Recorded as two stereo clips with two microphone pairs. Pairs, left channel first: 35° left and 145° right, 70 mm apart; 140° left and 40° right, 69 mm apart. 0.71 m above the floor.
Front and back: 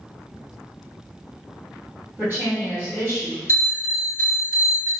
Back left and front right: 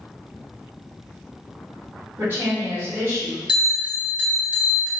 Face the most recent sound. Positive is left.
turn(degrees=-105)